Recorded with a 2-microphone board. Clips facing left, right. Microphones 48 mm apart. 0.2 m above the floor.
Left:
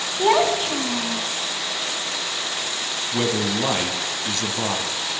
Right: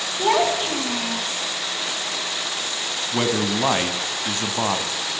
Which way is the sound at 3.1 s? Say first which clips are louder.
Right 1 dB; 30° right (ahead or behind).